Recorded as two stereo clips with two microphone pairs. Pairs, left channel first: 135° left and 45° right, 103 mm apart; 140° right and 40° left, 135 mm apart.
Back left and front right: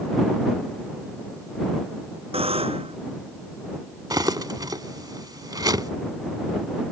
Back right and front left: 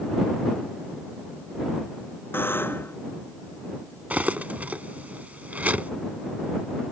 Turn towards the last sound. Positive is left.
turn(degrees=-35)